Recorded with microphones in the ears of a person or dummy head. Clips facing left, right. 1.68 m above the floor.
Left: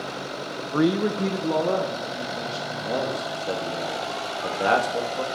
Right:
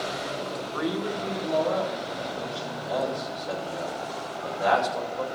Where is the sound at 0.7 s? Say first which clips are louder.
Left 9 dB; 45° left (ahead or behind), 0.7 m; by 3.3 s 80° left, 4.5 m.